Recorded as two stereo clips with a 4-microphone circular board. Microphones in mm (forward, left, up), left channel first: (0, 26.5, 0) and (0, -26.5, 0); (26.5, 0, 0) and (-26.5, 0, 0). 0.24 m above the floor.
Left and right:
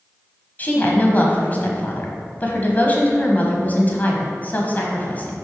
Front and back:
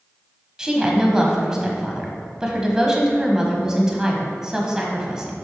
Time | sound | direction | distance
0.6 | a woman speaking | 110° left | 1.2 m